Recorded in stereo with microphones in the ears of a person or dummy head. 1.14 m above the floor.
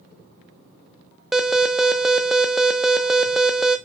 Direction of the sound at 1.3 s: 5° right (ahead or behind).